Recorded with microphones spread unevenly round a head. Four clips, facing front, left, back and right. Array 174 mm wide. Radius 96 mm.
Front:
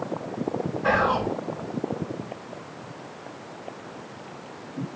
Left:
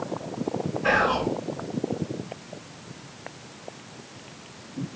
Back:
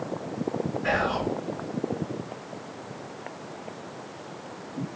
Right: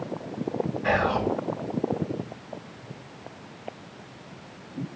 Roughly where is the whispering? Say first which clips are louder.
Left 2 dB, front 5 dB; ahead.